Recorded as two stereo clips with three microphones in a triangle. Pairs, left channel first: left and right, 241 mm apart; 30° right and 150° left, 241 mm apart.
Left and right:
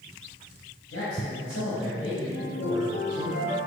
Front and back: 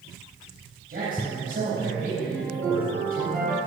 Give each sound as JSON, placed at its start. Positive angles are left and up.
{"t": 0.9, "sound": "a man speaking", "azimuth_deg": 100, "distance_m": 3.5}
{"t": 2.3, "sound": "a ringtone", "azimuth_deg": 55, "distance_m": 3.0}